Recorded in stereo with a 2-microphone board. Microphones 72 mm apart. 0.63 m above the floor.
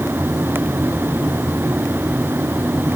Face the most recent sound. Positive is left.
No sound to turn to.